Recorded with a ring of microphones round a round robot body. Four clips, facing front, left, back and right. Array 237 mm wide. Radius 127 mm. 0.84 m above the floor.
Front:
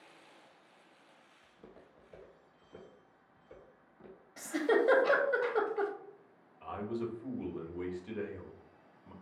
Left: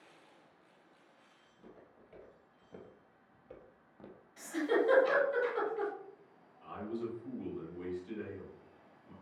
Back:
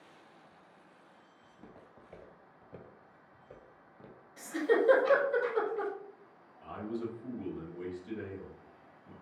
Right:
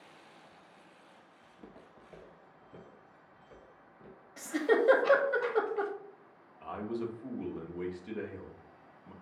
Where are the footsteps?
125° right, 1.5 m; by 4.3 s 120° left, 1.9 m.